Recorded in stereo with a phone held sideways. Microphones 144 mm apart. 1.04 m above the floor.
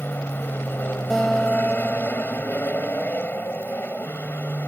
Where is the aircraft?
15° left (ahead or behind).